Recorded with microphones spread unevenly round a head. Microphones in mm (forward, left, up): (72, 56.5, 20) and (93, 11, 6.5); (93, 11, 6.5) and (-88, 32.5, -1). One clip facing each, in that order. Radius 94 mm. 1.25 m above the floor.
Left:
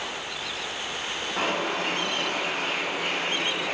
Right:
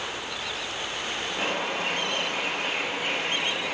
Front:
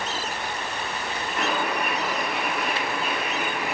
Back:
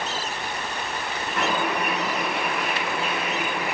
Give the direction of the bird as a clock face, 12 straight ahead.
7 o'clock.